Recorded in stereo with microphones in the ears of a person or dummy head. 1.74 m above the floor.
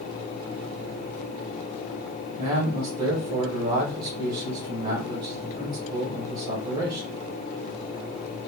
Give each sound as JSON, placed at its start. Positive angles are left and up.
{"t": 2.4, "sound": "a man speaking", "side_deg": -25, "distance_m": 2.0}